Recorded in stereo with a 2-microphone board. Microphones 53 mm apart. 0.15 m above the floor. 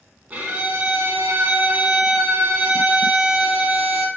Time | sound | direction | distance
0.3 | a violin | 30° right (ahead or behind) | 0.7 m